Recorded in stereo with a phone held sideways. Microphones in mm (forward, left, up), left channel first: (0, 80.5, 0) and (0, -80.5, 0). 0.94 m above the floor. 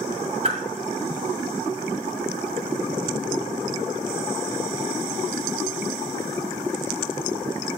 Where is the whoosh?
45° right (ahead or behind), 1.6 m.